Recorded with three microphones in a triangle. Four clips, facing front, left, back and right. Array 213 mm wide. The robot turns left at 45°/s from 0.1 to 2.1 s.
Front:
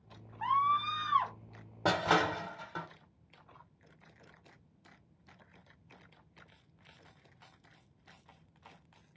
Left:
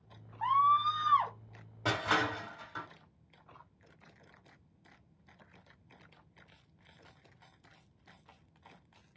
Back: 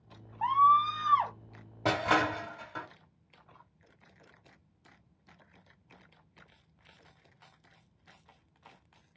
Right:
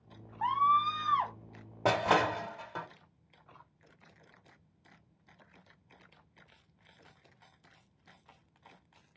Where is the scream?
155° right, 1.0 m; by 1.3 s 165° left, 1.0 m.